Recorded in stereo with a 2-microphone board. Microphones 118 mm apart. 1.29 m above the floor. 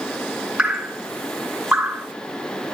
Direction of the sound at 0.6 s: 5° right (ahead or behind).